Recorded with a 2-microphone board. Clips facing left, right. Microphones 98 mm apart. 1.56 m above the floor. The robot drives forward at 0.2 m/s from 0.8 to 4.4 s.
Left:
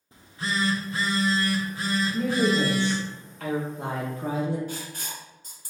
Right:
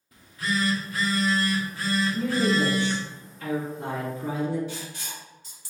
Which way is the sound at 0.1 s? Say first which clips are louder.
Right 1 dB; 25° left (ahead or behind).